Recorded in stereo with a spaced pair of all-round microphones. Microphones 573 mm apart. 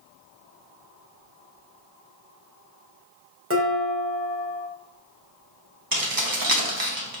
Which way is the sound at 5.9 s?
35° right (ahead or behind).